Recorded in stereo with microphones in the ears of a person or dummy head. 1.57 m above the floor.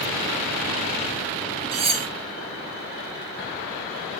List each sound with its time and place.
1.7 s cutlery clinking: 30° right (ahead or behind), 0.8 m